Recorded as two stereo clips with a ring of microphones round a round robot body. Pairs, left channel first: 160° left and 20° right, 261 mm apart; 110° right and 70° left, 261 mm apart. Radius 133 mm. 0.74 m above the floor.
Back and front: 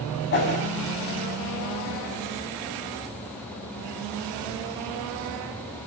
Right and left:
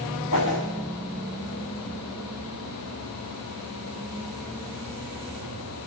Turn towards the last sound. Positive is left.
turn(degrees=-155)